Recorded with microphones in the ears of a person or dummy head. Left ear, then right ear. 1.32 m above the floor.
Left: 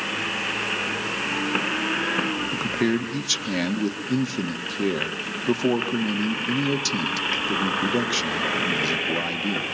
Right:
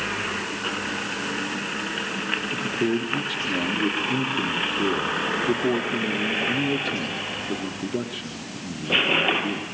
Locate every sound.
2.5 s a man speaking: 75° left (ahead or behind), 1.6 m